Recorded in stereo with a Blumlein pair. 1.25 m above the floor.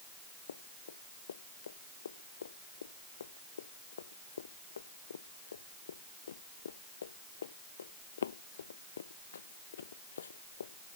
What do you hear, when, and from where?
0.5 s running footsteps: 70° left